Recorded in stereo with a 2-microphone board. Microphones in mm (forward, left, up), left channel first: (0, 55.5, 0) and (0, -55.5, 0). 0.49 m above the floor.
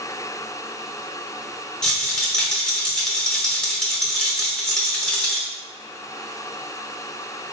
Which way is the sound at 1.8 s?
10° left (ahead or behind).